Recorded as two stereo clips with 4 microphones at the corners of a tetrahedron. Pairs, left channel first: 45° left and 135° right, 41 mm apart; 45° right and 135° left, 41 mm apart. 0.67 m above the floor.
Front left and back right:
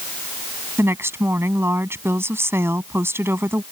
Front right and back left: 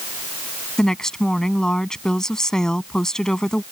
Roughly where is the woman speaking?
Behind right.